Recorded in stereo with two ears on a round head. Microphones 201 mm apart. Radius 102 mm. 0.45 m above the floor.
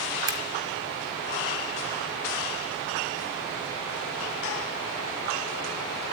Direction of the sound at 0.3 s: 20° right (ahead or behind).